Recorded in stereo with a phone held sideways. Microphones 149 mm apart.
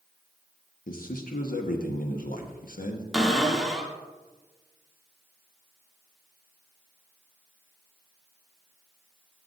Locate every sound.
0.9 s a man speaking: 75° left (ahead or behind), 1.1 m
3.1 s a cupboard door: centre (ahead or behind), 1.3 m